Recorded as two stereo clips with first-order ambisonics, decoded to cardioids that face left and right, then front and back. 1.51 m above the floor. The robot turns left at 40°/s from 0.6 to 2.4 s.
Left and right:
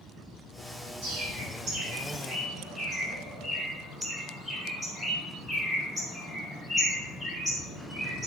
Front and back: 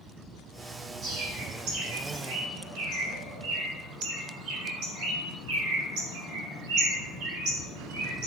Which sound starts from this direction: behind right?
A bird, at 1.0 s.